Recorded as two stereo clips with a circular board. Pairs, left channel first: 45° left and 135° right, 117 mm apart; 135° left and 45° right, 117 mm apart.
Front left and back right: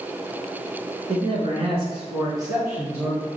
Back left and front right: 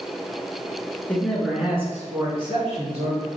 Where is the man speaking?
150° right, 1.6 m; by 3.3 s 60° right, 2.5 m.